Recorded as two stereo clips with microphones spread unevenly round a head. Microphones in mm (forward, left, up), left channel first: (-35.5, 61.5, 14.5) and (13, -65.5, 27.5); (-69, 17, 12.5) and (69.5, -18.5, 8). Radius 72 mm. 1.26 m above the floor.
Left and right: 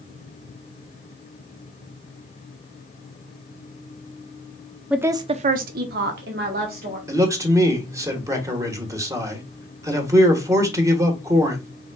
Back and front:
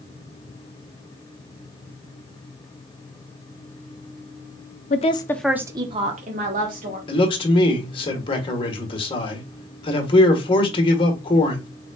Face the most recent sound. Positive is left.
turn(degrees=-140)